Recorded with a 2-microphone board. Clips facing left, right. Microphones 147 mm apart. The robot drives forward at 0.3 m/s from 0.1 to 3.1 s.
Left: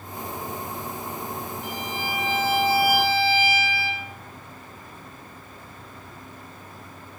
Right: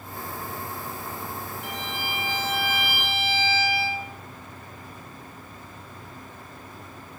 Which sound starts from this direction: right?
A violin, at 1.6 s.